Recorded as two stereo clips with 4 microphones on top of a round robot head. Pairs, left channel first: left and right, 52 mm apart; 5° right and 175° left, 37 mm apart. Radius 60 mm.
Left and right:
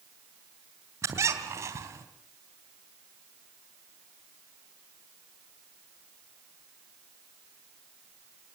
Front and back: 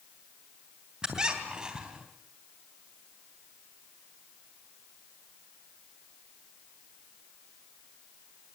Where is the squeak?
110° right, 3.5 m.